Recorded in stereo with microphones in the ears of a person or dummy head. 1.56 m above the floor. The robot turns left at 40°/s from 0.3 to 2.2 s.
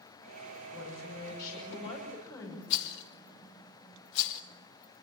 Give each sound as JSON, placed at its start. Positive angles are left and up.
{"t": 0.7, "sound": "a woman speaking", "azimuth_deg": 80, "distance_m": 6.0}
{"t": 2.7, "sound": "a rattle", "side_deg": 65, "distance_m": 1.5}